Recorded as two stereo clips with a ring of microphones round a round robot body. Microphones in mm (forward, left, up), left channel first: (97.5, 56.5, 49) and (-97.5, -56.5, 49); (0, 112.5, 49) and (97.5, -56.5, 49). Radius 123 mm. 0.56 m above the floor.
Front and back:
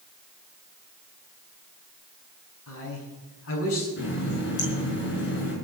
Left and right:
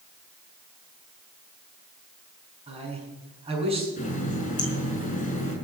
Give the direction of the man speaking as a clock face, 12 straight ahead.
12 o'clock.